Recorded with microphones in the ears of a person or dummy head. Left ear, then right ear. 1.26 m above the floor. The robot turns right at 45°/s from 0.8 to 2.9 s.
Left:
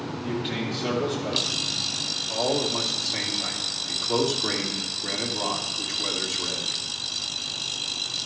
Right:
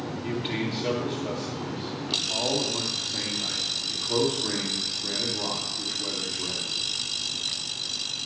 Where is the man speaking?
5° right, 2.5 m; by 6.8 s 90° left, 2.5 m.